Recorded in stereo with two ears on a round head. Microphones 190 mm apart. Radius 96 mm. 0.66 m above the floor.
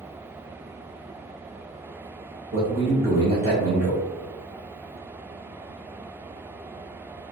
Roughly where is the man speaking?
Right.